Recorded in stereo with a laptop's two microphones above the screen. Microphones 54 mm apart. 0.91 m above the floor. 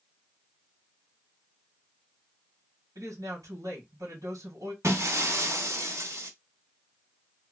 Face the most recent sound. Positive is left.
turn(degrees=-55)  # may be behind; listen again after turning